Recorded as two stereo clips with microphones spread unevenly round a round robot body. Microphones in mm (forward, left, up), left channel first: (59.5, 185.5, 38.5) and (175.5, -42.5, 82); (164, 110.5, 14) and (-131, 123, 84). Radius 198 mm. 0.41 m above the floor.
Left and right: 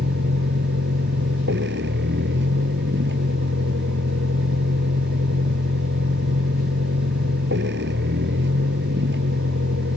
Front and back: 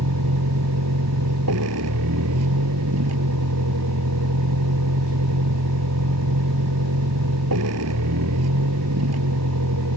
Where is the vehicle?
125° right.